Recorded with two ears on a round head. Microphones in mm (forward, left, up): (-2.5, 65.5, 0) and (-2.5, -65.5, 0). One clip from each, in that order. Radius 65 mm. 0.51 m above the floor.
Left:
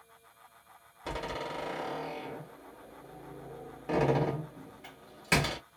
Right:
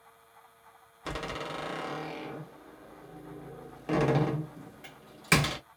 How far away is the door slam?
About 1.5 m.